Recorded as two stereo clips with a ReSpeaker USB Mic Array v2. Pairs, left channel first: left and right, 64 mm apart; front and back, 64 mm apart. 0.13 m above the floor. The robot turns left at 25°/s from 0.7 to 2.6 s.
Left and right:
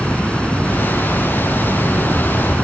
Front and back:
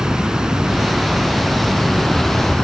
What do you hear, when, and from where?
0.0 s running water: 120° left, 0.9 m; by 2.6 s 75° left, 0.9 m